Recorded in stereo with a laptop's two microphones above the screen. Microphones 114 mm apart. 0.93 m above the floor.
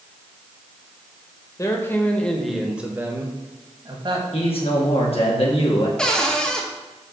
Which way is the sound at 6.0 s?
10° left (ahead or behind).